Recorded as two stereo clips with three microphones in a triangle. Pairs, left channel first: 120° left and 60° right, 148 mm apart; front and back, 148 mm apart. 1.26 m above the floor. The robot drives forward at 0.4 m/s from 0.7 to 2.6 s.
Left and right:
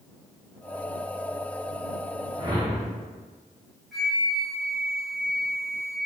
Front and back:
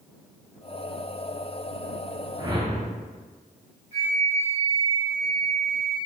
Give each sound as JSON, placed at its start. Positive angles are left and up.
{"t": 2.4, "sound": "a whoosh", "azimuth_deg": -110, "distance_m": 0.6}
{"t": 3.9, "sound": "a flute", "azimuth_deg": -150, "distance_m": 2.0}